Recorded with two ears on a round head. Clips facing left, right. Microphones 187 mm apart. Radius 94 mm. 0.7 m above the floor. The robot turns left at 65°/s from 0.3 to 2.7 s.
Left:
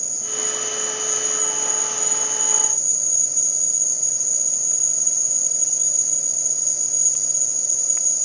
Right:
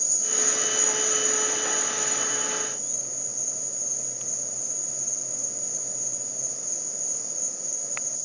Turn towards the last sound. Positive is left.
turn(degrees=85)